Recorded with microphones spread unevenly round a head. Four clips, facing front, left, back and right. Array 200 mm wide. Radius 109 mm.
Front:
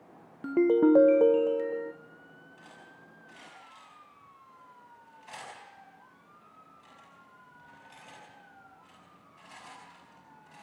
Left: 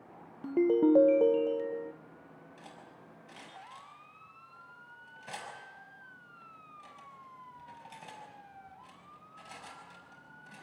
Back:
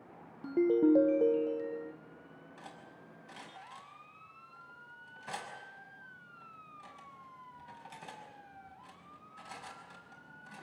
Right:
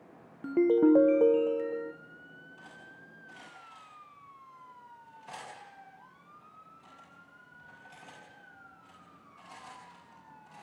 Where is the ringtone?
105° right, 0.5 m.